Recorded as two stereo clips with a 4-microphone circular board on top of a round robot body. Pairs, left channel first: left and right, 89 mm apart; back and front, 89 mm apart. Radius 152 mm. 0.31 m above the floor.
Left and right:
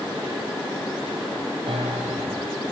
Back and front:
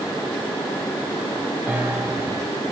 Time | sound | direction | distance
1.7 | a piano | 80° right | 5 m